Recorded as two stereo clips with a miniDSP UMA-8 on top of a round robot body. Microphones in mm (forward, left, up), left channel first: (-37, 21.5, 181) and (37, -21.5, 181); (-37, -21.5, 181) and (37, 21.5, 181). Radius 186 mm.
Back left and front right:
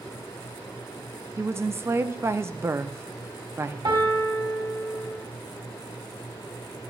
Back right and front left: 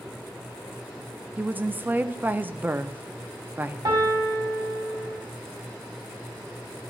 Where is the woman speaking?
20° right, 0.8 m.